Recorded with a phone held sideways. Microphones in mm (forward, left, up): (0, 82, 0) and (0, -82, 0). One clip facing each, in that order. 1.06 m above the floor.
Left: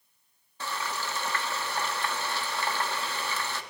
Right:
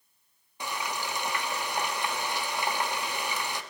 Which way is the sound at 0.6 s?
15° right (ahead or behind).